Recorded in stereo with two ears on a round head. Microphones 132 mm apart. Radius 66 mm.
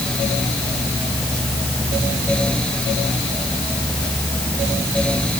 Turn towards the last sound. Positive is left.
No sound to turn to.